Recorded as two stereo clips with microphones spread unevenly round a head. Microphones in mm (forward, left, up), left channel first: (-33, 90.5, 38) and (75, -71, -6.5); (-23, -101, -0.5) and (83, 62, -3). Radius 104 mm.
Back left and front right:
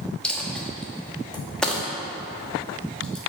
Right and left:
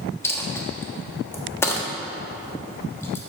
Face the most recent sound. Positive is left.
turn(degrees=175)